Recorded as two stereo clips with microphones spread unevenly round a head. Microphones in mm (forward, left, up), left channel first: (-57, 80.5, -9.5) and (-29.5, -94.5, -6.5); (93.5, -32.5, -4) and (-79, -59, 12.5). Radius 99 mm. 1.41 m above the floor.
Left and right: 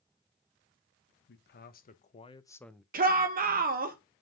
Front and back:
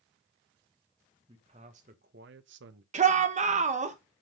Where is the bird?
No bird in this recording.